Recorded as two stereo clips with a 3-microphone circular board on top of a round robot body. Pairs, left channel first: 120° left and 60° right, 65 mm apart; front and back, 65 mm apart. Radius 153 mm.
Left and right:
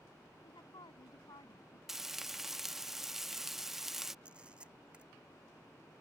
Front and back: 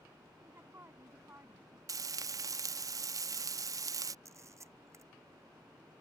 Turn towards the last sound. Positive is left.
turn(degrees=-135)